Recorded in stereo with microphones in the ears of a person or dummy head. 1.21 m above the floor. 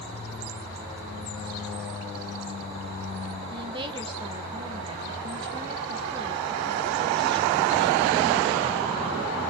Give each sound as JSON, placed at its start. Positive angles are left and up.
{"t": 3.5, "sound": "a woman speaking", "side_deg": -25, "distance_m": 1.0}